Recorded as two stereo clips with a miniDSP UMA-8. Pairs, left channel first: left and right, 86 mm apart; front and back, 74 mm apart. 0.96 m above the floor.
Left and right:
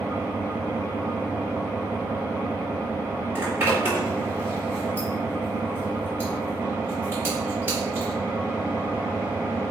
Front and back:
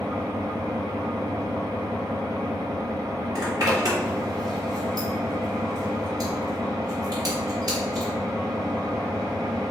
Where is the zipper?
150° right, 4 m.